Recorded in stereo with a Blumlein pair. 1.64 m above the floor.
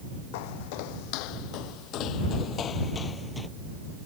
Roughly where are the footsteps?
Ahead left.